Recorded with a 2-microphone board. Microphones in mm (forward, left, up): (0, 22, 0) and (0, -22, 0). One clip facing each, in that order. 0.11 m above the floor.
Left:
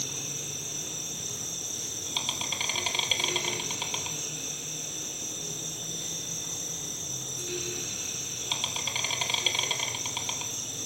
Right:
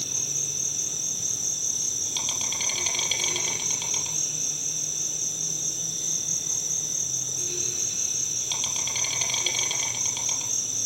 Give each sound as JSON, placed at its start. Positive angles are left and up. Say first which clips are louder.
{"t": 0.0, "sound": "an insect", "louder": "right 2 dB", "side_deg": 15, "distance_m": 3.5}